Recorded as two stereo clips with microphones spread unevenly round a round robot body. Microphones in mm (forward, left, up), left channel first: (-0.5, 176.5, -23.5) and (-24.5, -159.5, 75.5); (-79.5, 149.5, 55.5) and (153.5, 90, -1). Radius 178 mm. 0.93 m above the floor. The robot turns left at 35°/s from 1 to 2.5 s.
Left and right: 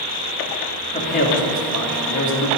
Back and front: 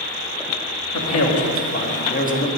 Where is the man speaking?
150° left, 2.5 m; by 2.5 s 100° left, 2.5 m.